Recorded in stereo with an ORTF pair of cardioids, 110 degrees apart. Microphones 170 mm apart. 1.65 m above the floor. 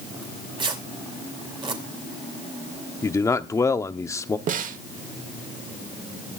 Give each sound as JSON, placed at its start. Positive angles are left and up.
{"t": 0.2, "sound": "tearing paper", "azimuth_deg": -30, "distance_m": 2.5}
{"t": 3.0, "sound": "a man speaking", "azimuth_deg": 20, "distance_m": 0.8}
{"t": 4.5, "sound": "a snare drum", "azimuth_deg": -50, "distance_m": 1.1}